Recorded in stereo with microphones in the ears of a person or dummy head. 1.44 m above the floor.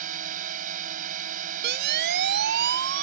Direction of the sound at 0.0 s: 45° right (ahead or behind).